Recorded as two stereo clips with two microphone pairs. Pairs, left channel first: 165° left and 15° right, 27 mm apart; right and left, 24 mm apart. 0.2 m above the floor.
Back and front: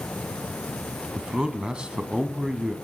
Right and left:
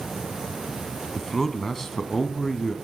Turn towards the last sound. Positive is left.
turn(degrees=-30)